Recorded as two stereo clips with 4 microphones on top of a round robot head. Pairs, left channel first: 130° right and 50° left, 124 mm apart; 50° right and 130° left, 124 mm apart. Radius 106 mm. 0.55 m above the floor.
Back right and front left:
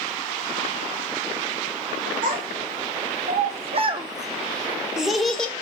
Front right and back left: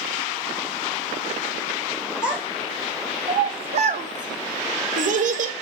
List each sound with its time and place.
2.2 s a child speaking: 45° left, 1.1 m; by 5.5 s 150° left, 1.2 m